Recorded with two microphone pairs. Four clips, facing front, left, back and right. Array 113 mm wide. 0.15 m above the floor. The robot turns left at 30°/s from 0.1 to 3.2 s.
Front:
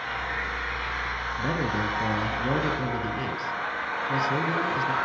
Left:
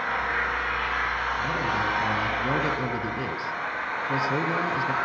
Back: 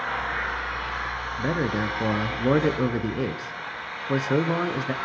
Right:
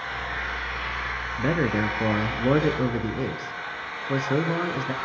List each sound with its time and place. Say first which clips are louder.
0.0 s an engine running: left 5 dB, back 3 dB; 140° left, 5.5 m; by 5.0 s 45° left, 5.5 m
1.4 s a man speaking: right 7 dB, back 2 dB; 105° right, 1.6 m; by 4.9 s 160° right, 1.6 m